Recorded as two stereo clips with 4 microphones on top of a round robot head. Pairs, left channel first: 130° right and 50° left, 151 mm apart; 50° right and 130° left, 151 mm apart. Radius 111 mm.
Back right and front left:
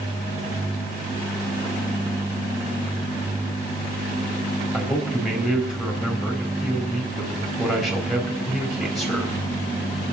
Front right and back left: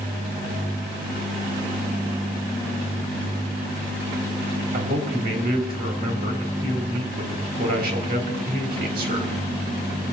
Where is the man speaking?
145° left, 3.5 m.